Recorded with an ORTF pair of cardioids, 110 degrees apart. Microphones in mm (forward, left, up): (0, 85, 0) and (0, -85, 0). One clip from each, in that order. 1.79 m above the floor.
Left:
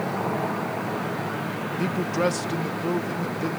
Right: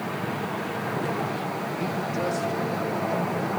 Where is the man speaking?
30° left, 1.5 m; by 3.5 s 60° left, 3.5 m.